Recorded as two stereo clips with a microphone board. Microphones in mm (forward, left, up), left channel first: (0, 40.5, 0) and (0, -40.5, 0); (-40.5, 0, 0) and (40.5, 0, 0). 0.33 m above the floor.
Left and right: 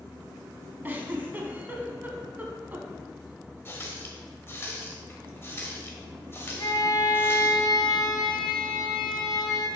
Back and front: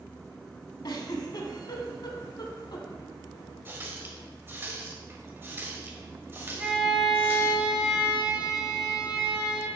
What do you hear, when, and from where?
0.8 s a giggle: 155° right, 0.8 m
3.6 s a running tap: 50° left, 1.0 m
6.6 s a violin: 75° left, 1.2 m